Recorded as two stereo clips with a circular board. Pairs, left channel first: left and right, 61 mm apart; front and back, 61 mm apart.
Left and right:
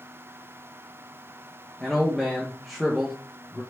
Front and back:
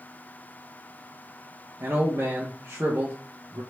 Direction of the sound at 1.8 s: Straight behind.